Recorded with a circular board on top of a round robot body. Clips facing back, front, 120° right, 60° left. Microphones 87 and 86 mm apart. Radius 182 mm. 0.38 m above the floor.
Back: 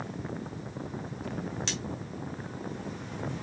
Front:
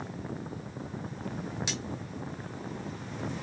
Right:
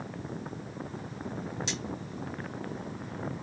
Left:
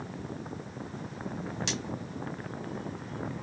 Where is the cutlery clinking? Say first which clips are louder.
Even, left 2 dB; 75° left, 1.4 m.